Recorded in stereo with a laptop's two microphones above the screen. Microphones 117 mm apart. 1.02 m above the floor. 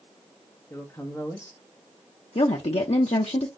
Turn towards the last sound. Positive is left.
turn(degrees=65)  # may be behind; listen again after turning